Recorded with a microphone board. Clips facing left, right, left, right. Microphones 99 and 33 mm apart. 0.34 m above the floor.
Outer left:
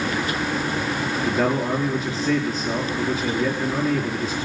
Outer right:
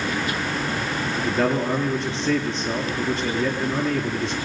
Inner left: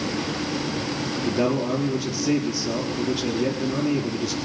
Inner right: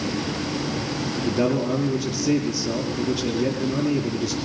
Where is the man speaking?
Centre (ahead or behind), 6 m.